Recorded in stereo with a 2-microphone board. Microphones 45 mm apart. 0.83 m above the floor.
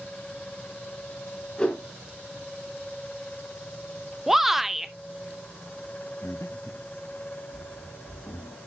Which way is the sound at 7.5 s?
75° left (ahead or behind).